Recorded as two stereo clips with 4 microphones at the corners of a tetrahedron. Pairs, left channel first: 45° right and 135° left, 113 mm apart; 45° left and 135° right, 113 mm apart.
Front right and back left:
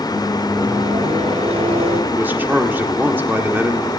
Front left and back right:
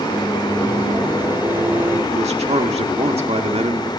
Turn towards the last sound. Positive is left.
turn(degrees=-155)